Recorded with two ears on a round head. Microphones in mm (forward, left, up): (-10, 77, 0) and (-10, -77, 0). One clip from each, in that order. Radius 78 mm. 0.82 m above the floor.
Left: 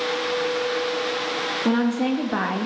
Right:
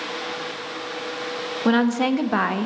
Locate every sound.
1.6 s a woman speaking: 50° right (ahead or behind), 1.1 m; by 2.7 s 10° right (ahead or behind), 0.6 m